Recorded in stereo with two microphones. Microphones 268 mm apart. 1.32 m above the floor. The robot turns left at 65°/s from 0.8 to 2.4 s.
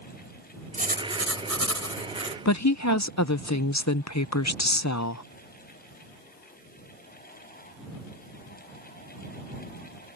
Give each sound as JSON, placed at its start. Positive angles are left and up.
{"t": 0.7, "sound": "writing", "azimuth_deg": -30}
{"t": 2.5, "sound": "a woman speaking", "side_deg": 85}